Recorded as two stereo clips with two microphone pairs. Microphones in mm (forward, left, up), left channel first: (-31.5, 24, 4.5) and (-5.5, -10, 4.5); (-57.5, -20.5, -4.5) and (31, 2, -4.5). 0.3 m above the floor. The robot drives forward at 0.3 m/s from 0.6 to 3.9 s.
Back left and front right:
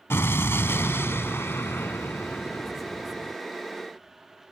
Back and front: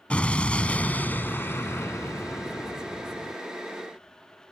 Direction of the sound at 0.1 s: 120° left.